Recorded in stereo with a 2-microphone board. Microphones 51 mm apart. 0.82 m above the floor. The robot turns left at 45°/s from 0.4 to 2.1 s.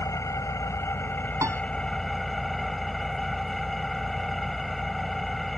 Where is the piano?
75° right (ahead or behind); by 1.6 s 80° right.